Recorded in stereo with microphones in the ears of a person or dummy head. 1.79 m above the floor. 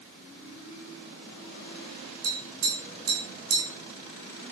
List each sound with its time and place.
2.2 s tapping: 80° right, 5.5 m